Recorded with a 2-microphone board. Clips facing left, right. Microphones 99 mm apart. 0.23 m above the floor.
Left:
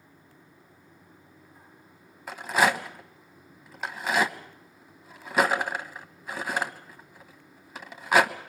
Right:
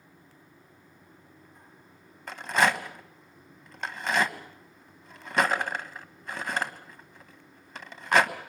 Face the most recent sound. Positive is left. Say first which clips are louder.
# left 1 dB
turn(degrees=5)  # may be behind; listen again after turning